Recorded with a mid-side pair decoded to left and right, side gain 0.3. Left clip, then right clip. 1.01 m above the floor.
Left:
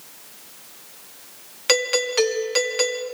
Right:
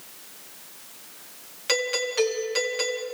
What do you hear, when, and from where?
1.7 s a doorbell: 70° left, 2 m